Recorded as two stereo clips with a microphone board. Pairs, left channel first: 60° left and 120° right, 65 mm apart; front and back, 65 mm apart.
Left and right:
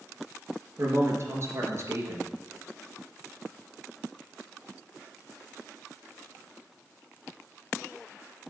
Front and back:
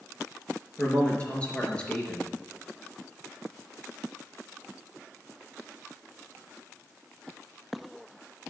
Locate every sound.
0.8 s a man speaking: 70° right, 3.5 m